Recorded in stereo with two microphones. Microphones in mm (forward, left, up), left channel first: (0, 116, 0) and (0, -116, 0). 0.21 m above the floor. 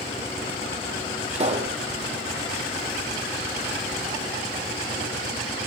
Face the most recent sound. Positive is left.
turn(degrees=-30)  # may be behind; listen again after turning